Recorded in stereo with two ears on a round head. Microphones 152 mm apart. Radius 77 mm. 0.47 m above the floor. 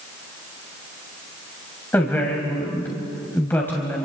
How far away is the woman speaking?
About 2.5 m.